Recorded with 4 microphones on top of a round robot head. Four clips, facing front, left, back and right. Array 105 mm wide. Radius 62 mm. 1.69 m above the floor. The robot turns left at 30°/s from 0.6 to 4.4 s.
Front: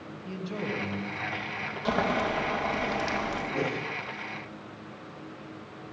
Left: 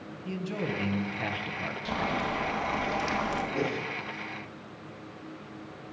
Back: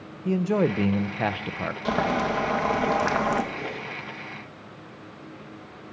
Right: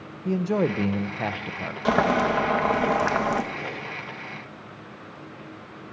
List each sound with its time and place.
0.2 s a man speaking: 140° right, 1.6 m; by 1.8 s 175° right, 1.6 m
1.9 s boiling: 90° right, 2.5 m; by 3.4 s 135° right, 2.5 m
3.5 s a whoosh: 40° left, 5.5 m; by 3.9 s 25° left, 5.5 m